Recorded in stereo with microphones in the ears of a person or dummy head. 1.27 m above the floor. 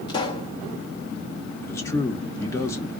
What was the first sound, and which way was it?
A pop, 20° left (ahead or behind).